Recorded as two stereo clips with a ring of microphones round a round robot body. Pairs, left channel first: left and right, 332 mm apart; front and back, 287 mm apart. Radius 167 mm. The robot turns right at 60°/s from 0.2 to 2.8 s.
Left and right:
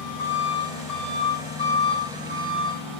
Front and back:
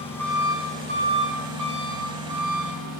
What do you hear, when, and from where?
0.0 s an engine running: 85° left, 8.5 m; by 3.0 s 120° right, 8.5 m